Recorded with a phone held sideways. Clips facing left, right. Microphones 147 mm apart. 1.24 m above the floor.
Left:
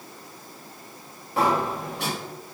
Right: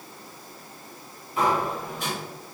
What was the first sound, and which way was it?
A sliding door, 75° left (ahead or behind).